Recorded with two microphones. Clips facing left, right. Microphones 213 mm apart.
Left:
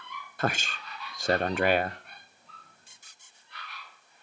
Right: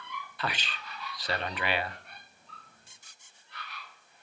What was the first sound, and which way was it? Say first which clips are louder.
A man speaking: left 7 dB; 45° left (ahead or behind).